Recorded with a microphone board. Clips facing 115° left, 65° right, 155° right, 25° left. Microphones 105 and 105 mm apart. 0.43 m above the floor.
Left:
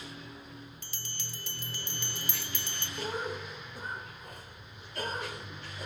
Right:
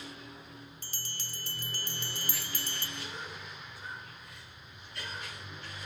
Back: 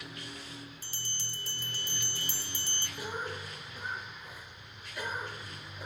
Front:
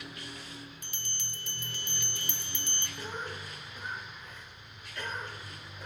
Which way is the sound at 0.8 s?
110° right.